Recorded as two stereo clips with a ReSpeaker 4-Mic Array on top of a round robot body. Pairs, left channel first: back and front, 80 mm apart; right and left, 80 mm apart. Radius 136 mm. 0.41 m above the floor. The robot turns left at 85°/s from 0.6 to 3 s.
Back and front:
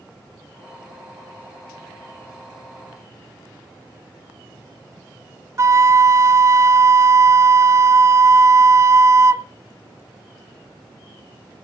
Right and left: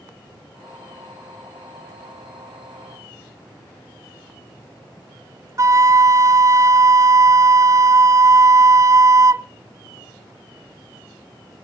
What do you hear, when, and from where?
5.6 s a flute: 45° left, 0.7 m